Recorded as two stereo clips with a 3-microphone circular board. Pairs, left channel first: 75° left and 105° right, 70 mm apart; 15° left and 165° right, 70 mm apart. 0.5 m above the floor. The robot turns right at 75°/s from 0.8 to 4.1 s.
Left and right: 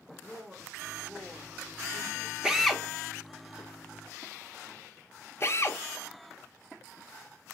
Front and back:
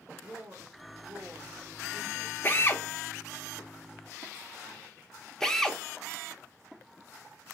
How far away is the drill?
About 0.8 m.